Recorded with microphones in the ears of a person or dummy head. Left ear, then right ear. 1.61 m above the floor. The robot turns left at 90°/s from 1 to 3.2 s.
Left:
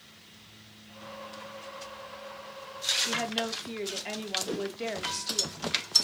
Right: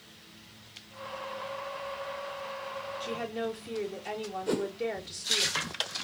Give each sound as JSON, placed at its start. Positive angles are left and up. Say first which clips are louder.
{"t": 3.0, "sound": "a woman speaking", "louder": "left 4 dB", "side_deg": 50, "distance_m": 2.5}
{"t": 4.5, "sound": "a whoosh", "louder": "right 3 dB", "side_deg": -55, "distance_m": 0.8}